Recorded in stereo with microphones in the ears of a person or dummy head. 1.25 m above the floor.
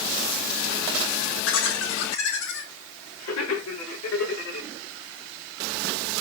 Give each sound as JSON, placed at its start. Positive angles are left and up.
{"t": 1.4, "sound": "laughter", "side_deg": 80, "distance_m": 2.0}